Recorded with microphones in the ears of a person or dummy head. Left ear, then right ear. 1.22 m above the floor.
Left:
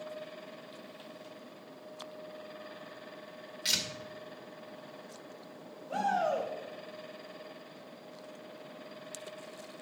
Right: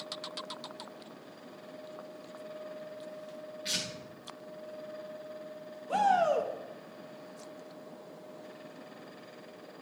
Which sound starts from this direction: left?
Tearing paper, at 3.6 s.